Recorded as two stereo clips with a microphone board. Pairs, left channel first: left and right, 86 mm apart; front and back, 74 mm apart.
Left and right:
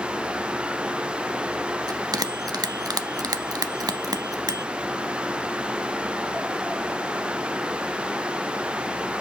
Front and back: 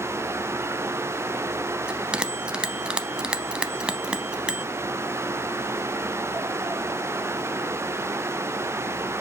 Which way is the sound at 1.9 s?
105° right.